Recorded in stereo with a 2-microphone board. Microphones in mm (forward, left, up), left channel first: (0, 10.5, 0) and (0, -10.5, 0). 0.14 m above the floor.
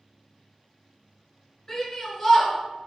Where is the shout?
20° left (ahead or behind), 1.7 m.